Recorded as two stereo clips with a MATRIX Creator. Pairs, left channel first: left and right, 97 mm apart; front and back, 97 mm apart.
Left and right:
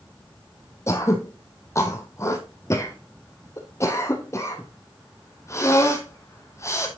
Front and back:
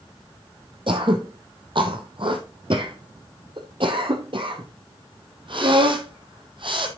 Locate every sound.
0.9 s throat clearing: 150° left, 1.6 m